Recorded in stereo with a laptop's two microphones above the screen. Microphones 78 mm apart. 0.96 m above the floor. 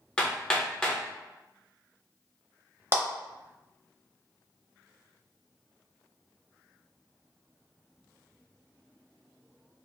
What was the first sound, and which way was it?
Hammering, 15° left (ahead or behind).